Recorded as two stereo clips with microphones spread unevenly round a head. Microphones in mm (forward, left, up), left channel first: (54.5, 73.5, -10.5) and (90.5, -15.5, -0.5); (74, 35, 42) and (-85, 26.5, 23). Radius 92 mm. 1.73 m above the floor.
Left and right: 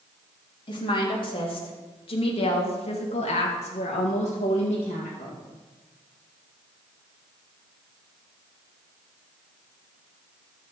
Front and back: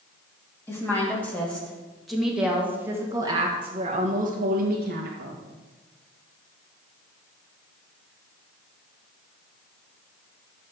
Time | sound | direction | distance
0.7 | a woman speaking | 75° left | 3 m